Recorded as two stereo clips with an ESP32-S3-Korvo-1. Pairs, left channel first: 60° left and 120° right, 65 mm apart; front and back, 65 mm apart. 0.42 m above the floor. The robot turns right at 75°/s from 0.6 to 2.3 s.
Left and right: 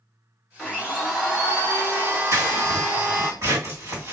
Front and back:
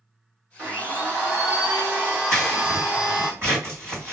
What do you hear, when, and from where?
0.6 s a blender: 120° left, 1.2 m; by 3.3 s 110° right, 1.2 m
2.3 s scissors: 140° right, 2 m